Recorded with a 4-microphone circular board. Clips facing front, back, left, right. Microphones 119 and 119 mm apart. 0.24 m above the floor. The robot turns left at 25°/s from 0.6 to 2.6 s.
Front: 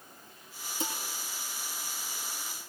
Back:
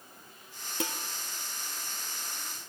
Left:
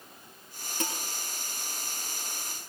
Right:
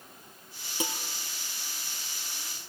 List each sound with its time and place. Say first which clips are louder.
0.8 s dishes clattering: back 2 dB, right 1 dB; 170° right, 3 m; by 0.9 s 175° right, 3 m